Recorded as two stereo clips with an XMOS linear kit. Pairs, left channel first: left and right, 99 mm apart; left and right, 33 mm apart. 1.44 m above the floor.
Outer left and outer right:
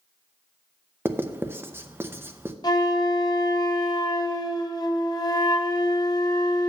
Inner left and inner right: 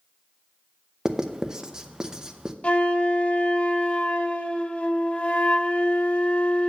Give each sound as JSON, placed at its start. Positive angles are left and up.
{"t": 1.1, "sound": "writing", "side_deg": -25, "distance_m": 0.6}
{"t": 2.6, "sound": "a flute", "side_deg": 40, "distance_m": 0.7}